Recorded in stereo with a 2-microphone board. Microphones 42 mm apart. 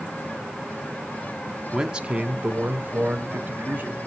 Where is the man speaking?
10° right (ahead or behind), 1.2 m; by 4.0 s 50° right (ahead or behind), 3 m.